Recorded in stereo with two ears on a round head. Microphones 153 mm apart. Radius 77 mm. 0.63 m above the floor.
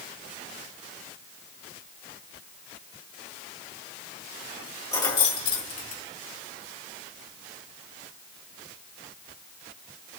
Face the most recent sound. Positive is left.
turn(degrees=50)  # may be behind; listen again after turning